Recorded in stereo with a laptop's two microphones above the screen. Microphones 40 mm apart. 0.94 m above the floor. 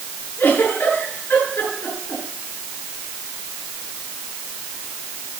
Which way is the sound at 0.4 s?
75° left (ahead or behind).